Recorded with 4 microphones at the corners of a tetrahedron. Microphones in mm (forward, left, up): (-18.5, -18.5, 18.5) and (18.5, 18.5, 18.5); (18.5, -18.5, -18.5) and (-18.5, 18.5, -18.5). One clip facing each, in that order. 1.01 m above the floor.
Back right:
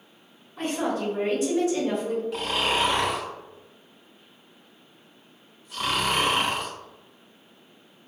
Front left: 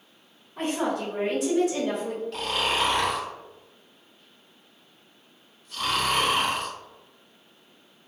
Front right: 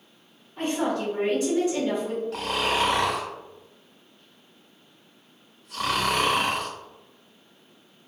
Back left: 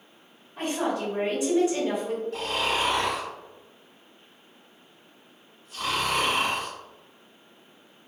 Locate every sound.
0.6 s a woman speaking: 60° left, 1.6 m
2.3 s snoring: 55° right, 0.8 m